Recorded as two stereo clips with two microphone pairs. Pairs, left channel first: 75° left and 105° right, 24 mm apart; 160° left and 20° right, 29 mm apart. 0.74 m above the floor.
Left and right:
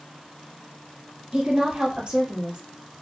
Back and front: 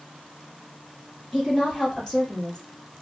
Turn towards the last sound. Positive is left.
turn(degrees=-145)